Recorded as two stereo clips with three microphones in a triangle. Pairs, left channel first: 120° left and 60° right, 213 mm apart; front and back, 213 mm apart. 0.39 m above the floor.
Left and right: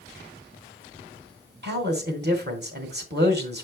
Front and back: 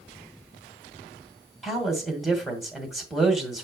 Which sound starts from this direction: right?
A man speaking, at 1.6 s.